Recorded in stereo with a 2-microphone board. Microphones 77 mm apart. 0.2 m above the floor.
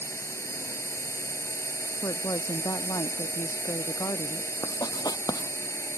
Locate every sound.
0.0 s a drone: 35° left (ahead or behind)
2.0 s a woman speaking: 55° left (ahead or behind)
4.6 s writing: 55° left (ahead or behind)